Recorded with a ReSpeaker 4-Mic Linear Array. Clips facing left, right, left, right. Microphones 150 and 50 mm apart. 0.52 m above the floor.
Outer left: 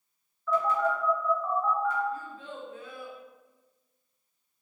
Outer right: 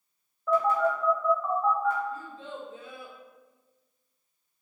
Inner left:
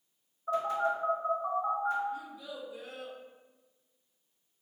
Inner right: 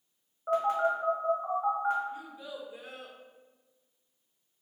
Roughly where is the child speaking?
Right.